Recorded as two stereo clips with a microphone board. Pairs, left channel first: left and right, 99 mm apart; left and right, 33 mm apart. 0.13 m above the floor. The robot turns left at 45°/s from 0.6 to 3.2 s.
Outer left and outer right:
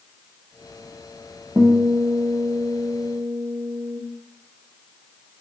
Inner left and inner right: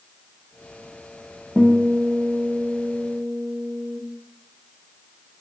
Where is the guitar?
20° right, 1.0 m; by 4.0 s 95° right, 1.0 m.